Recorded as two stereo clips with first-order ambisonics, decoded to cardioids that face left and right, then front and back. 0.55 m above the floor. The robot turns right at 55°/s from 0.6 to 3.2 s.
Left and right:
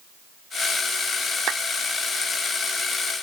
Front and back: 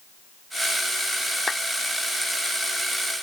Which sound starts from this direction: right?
A clap, at 1.5 s.